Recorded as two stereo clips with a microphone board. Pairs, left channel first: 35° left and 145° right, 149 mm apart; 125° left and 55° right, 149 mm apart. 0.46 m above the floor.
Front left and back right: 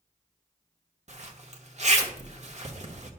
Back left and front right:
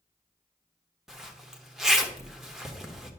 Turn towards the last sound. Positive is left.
turn(degrees=-140)